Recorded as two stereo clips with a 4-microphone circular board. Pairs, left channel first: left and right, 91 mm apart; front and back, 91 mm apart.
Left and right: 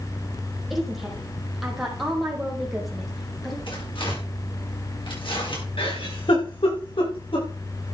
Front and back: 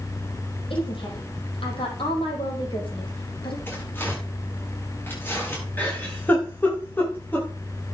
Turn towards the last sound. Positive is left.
turn(degrees=70)